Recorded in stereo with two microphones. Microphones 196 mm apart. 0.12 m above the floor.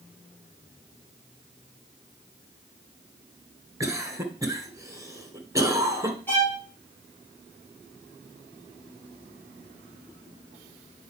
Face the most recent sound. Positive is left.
turn(degrees=10)  # may be behind; listen again after turning